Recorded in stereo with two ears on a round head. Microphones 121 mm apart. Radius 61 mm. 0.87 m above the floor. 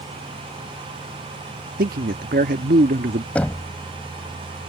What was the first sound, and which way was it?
A man speaking, 75° right (ahead or behind).